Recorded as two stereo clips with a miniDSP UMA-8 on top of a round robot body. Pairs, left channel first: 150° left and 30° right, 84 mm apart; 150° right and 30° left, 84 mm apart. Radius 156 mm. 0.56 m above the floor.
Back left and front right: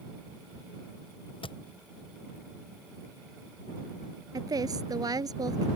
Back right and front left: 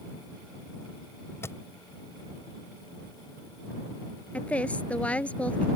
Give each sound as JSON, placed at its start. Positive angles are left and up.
{"t": 1.4, "sound": "a thud", "azimuth_deg": 150}
{"t": 4.3, "sound": "a woman speaking", "azimuth_deg": -75}